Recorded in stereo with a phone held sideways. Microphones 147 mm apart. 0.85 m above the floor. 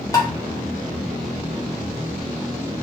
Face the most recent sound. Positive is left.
turn(degrees=25)  # may be behind; listen again after turning